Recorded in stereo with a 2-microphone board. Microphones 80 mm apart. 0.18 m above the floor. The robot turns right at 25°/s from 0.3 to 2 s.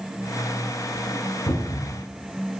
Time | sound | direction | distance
1.5 | a cupboard door | 45° left (ahead or behind) | 1.1 m